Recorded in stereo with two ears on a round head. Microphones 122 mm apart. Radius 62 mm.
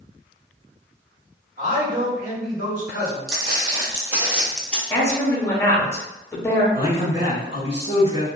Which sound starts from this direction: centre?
A woman speaking, at 4.9 s.